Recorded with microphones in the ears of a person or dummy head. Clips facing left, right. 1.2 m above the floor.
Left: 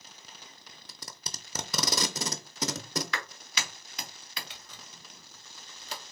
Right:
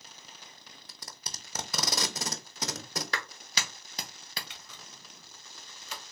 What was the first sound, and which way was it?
Tape being pulled, 85° left.